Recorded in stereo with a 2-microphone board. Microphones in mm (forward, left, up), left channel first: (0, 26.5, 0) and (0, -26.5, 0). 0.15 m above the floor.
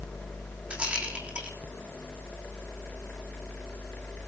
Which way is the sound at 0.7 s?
20° right (ahead or behind).